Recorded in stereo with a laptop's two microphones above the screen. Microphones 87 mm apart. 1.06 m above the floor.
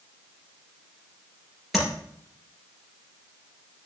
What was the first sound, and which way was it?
Tapping, 5° right (ahead or behind).